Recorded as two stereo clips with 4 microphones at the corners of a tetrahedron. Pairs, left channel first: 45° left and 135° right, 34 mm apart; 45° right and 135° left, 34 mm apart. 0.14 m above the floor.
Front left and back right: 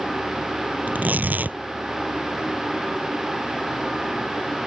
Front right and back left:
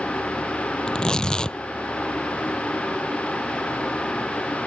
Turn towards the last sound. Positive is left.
turn(degrees=-110)